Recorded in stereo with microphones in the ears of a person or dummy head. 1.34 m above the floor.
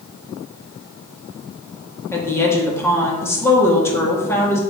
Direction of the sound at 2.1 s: 15° left (ahead or behind).